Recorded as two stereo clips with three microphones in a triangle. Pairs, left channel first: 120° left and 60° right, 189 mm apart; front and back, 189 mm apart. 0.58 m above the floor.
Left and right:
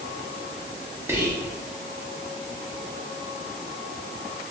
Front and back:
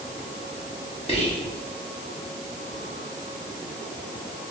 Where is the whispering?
5° left, 0.7 m.